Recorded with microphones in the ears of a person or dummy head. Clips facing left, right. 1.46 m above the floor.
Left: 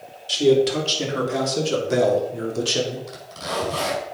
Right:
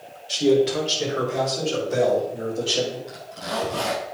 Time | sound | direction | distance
0.3 | a man speaking | 55° left (ahead or behind) | 3 m
3.1 | a zipper | 70° left (ahead or behind) | 5.5 m